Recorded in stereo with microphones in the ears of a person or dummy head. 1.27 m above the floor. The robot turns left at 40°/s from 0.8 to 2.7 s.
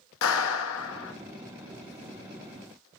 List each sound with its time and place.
0.2 s a clap: 85° left, 1.6 m; by 1.1 s 80° left, 1.6 m